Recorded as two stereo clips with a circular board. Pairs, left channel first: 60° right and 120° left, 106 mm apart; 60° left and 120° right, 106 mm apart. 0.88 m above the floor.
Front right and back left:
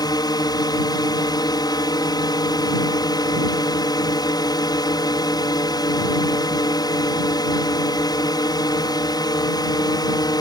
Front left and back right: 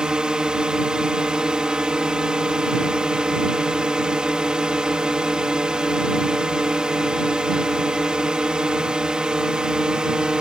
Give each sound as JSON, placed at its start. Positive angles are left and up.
{"t": 0.0, "sound": "a drone", "azimuth_deg": -40}